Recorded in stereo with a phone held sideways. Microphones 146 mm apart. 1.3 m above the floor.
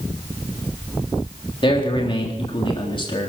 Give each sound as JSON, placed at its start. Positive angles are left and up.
{"t": 1.6, "sound": "a man speaking", "side_deg": 35, "distance_m": 3.5}